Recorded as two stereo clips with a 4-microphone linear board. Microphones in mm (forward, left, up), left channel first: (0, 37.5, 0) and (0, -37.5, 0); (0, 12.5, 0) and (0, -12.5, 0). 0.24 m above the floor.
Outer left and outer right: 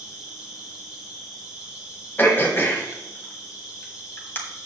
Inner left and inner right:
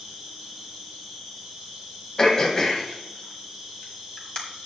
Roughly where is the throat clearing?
Left.